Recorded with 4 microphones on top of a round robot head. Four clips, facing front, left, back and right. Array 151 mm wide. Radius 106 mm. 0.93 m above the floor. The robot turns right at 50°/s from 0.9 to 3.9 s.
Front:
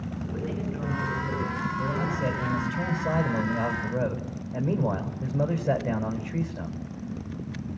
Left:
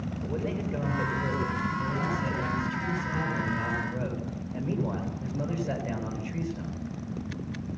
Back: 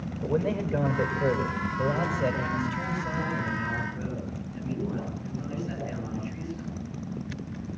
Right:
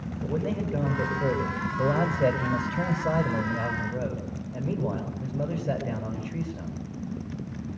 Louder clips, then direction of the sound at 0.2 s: Right 4 dB, back 7 dB; 165° right.